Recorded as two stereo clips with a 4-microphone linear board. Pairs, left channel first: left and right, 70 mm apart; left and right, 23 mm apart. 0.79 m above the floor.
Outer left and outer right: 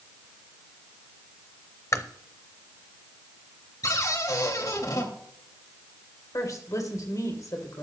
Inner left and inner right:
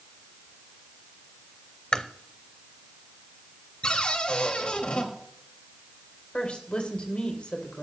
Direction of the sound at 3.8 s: 55° left (ahead or behind).